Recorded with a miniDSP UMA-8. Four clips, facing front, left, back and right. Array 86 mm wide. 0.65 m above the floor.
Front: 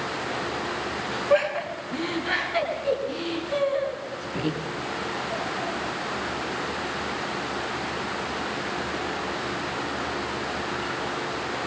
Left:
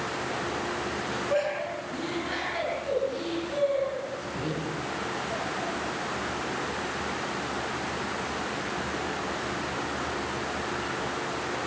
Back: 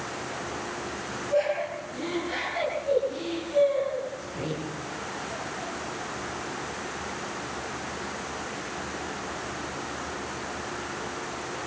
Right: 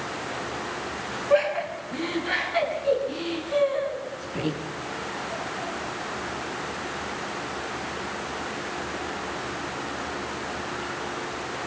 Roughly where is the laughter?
Ahead right.